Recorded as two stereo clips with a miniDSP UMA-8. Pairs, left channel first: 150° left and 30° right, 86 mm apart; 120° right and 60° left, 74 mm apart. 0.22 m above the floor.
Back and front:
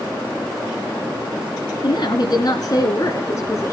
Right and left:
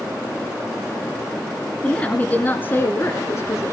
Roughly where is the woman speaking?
Behind.